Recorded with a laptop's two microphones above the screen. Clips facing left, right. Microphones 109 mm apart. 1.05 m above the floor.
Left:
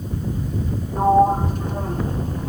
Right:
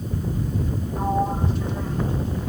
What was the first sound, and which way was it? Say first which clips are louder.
A sliding door: left 9 dB; 50° left (ahead or behind).